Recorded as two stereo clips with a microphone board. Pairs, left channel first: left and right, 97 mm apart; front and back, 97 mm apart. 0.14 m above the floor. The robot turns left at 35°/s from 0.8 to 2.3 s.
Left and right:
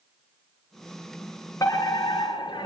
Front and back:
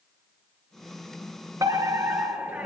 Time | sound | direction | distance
1.6 | a fire alarm | 135° left | 3.5 m